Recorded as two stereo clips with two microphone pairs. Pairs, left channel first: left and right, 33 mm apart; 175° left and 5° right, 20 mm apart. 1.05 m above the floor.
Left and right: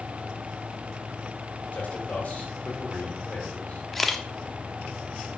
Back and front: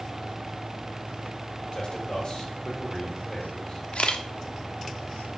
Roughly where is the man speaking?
Behind left.